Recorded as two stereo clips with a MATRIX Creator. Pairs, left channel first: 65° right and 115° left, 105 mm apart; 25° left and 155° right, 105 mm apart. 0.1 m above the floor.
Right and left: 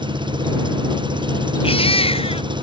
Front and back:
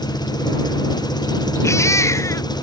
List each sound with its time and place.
0.0 s an engine running: 70° left
1.6 s a baby crying: 40° right